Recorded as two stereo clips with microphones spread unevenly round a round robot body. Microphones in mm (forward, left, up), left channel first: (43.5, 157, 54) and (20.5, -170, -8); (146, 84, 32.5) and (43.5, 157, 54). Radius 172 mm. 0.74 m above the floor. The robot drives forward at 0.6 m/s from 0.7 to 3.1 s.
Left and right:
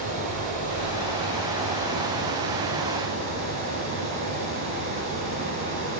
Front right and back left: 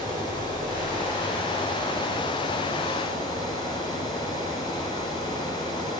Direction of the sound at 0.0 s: 165° right.